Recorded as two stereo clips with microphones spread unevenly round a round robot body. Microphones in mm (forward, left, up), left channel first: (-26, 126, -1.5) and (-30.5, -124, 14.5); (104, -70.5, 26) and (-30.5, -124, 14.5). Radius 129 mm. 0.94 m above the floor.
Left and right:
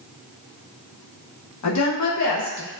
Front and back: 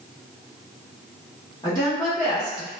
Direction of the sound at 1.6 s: 95° left.